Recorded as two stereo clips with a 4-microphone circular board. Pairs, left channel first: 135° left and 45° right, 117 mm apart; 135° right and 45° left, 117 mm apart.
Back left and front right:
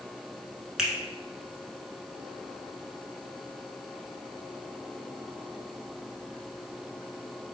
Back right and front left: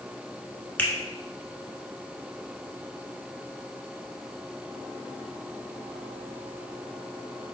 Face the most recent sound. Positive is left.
turn(degrees=-115)